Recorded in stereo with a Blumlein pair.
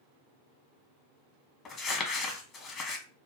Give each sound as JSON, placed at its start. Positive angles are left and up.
{"t": 1.6, "sound": "crumpling", "azimuth_deg": 30, "distance_m": 1.2}